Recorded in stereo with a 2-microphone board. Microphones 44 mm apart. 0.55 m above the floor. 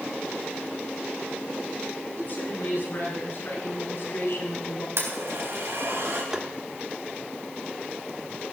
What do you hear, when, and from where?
2.1 s a woman speaking: 50° left (ahead or behind), 6.5 m; by 4.9 s 65° left (ahead or behind), 4 m
5.0 s a blender: 75° right (ahead or behind), 3.5 m
6.3 s tapping: 15° right (ahead or behind), 1.2 m